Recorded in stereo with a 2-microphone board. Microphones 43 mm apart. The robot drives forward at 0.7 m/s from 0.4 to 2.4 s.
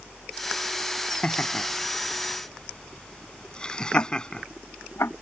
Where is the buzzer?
I don't hear a buzzer.